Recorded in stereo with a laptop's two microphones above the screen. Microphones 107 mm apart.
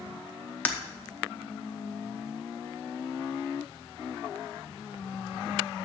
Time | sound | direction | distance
0.7 | breaking glass | 15° left (ahead or behind) | 0.7 m